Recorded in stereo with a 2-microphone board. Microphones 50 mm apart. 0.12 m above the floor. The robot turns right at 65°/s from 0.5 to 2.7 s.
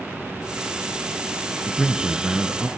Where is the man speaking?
170° left, 1.6 m; by 2.7 s 125° right, 1.6 m.